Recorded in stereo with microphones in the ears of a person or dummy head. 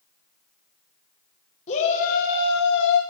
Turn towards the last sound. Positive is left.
turn(degrees=60)  # may be behind; listen again after turning